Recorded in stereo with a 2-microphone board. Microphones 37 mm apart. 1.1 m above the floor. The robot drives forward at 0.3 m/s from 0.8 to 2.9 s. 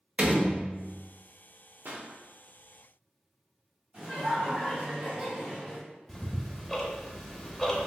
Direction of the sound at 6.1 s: 10° left (ahead or behind).